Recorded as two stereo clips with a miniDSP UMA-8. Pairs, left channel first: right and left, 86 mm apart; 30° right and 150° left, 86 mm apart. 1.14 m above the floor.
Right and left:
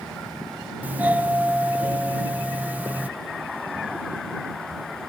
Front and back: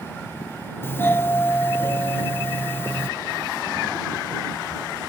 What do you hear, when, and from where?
0.8 s a doorbell: 25° left